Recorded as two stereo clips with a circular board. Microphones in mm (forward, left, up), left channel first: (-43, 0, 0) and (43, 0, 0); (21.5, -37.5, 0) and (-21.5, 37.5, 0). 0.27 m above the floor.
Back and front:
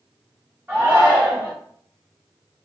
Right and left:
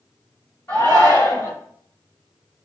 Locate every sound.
0.7 s a shout: 40° right, 1.9 m